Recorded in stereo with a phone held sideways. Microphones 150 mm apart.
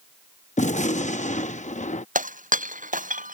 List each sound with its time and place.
0.6 s a gunshot: 55° left (ahead or behind)
2.1 s breaking glass: 60° right (ahead or behind)